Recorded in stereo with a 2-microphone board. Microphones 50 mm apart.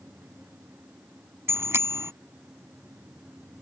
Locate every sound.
1.5 s a bicycle bell: 60° right (ahead or behind)